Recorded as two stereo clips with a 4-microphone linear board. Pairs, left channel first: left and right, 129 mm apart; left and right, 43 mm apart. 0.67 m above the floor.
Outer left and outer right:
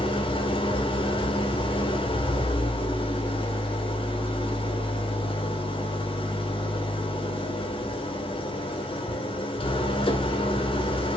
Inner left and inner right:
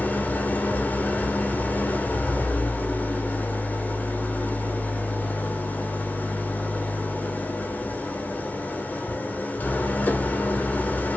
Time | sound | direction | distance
0.0 | an engine running | 45° left (ahead or behind) | 1.8 m